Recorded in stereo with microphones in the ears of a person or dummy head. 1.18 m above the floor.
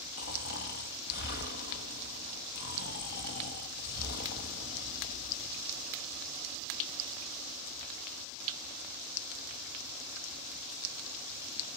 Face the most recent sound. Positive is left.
turn(degrees=45)  # may be behind; listen again after turning